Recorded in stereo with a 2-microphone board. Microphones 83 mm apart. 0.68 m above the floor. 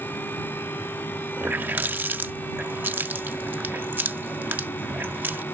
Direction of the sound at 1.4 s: 25° right (ahead or behind).